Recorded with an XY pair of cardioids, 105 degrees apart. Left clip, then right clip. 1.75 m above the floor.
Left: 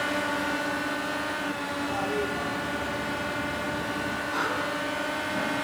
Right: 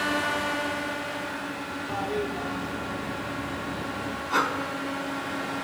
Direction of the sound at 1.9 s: 10° right.